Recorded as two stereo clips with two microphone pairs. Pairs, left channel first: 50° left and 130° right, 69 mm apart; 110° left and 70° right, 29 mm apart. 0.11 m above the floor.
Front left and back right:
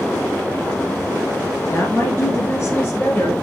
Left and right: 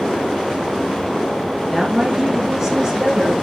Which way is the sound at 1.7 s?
15° left.